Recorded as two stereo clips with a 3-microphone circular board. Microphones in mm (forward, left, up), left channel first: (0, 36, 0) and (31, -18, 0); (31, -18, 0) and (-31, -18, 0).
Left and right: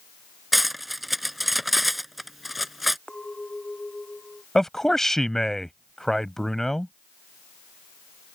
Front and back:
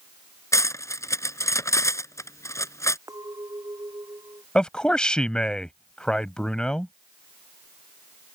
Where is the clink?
165° right.